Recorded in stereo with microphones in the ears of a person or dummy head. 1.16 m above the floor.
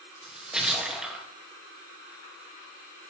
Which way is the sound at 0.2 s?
Centre (ahead or behind).